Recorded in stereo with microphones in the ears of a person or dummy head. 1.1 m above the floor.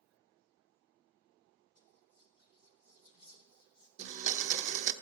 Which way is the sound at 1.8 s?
25° left (ahead or behind).